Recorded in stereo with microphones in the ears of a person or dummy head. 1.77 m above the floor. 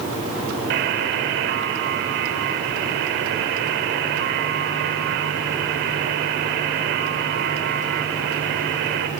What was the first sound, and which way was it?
A buzzer, 50° right (ahead or behind).